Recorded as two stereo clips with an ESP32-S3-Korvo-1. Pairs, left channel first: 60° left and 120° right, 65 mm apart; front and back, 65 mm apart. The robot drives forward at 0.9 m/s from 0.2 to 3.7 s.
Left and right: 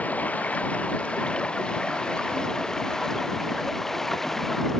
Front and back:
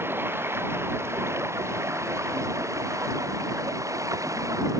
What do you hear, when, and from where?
0.0 s running water: 130° left; by 4.8 s 145° left